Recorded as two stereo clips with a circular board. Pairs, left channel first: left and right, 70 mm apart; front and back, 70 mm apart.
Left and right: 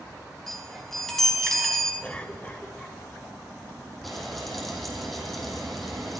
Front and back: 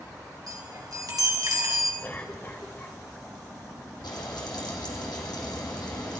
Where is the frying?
Straight ahead, 3 m.